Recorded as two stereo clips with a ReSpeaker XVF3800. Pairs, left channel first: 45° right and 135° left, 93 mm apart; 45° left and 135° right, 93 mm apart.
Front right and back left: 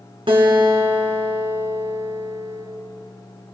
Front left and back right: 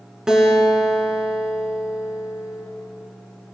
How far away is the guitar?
About 3.5 m.